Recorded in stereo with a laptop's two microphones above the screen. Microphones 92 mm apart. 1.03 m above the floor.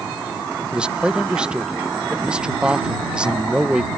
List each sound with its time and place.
0.7 s a man speaking: 10° right (ahead or behind)